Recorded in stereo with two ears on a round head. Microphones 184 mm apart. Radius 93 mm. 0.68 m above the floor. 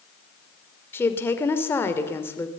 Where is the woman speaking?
10° left (ahead or behind), 2.5 m.